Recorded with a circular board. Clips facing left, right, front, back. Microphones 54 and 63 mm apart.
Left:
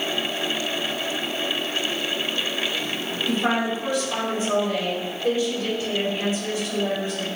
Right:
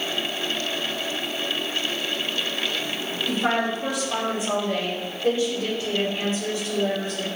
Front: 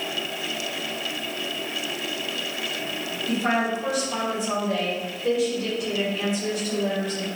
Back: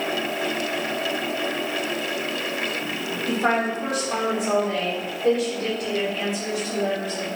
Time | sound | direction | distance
3.3 | a woman speaking | straight behind | 1.9 m